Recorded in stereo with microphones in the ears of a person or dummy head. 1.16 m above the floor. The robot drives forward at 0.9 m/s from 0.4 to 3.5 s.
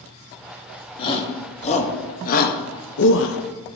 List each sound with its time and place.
1.0 s a shout: 30° left (ahead or behind), 2.5 m; by 3.4 s 65° left (ahead or behind), 1.5 m